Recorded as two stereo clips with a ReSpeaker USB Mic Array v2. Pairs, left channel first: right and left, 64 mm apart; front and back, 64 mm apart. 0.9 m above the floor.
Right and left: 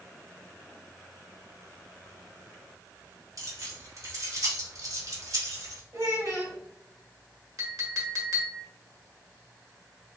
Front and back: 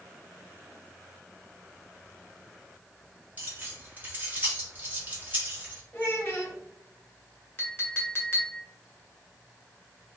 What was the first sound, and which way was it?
Keys jangling, 120° left.